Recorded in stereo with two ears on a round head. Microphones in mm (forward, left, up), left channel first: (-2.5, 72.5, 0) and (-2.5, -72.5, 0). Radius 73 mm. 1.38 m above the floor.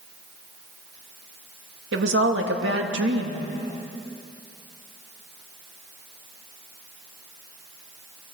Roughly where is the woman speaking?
Right.